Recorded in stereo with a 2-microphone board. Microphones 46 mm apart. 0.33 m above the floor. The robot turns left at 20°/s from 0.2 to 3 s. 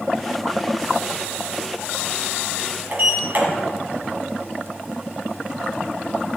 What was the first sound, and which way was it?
A sliding door, 40° right (ahead or behind).